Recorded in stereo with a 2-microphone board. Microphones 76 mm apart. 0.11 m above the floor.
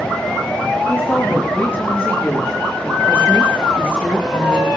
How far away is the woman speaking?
About 8.5 m.